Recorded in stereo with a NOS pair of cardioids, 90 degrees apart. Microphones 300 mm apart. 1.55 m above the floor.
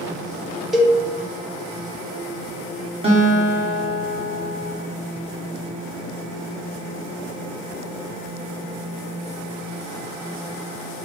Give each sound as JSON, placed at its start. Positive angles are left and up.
{"t": 0.7, "sound": "a cowbell", "azimuth_deg": 0, "distance_m": 0.7}
{"t": 3.0, "sound": "a guitar", "azimuth_deg": -20, "distance_m": 1.1}